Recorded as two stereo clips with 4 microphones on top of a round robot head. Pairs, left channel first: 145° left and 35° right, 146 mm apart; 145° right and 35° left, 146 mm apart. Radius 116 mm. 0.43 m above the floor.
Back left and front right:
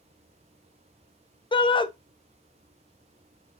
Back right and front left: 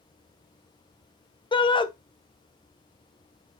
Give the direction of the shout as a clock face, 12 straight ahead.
6 o'clock.